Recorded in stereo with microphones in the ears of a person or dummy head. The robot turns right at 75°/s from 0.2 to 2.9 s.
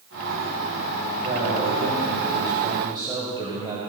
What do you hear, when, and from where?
1.2 s a man speaking: 150° right, 5.5 m; by 3.8 s 25° right, 5.5 m